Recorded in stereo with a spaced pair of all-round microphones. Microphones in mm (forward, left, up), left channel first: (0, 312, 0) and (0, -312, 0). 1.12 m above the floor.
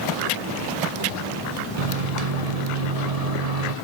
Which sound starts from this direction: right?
A microwave, at 1.8 s.